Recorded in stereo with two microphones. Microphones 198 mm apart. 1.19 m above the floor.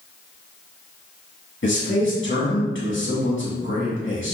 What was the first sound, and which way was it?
A man speaking, 75° left (ahead or behind).